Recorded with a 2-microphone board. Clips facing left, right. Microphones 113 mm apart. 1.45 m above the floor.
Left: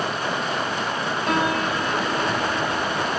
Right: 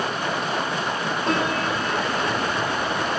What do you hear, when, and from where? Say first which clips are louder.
1.3 s a piano: left 1 dB; 30° right (ahead or behind), 2.5 m